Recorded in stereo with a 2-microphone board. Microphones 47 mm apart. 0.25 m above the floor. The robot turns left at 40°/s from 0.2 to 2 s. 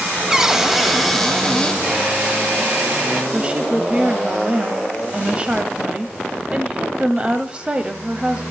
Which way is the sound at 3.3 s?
25° right (ahead or behind).